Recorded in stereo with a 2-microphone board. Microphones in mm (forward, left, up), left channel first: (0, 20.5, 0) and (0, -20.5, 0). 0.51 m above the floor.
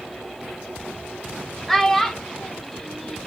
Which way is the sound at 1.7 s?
5° left (ahead or behind).